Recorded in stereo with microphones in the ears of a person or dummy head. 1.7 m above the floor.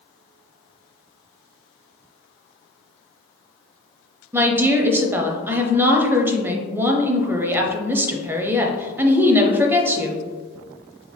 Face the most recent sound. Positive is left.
turn(degrees=-15)  # may be behind; listen again after turning